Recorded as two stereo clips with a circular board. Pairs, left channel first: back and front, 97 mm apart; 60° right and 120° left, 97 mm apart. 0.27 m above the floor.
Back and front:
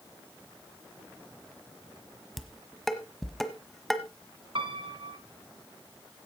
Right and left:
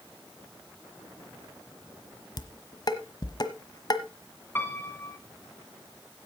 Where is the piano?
5° left, 2 m.